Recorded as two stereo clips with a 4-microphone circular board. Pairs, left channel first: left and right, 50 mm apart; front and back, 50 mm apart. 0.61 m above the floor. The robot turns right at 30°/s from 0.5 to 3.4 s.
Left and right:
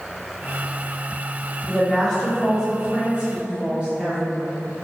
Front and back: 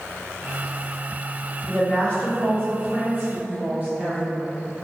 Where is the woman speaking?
155° left, 1.5 m; by 4.5 s 150° right, 1.5 m.